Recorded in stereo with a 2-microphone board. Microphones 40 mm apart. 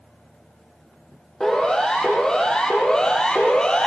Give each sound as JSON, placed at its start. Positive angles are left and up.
{"t": 1.4, "sound": "a siren", "side_deg": 15, "distance_m": 6.5}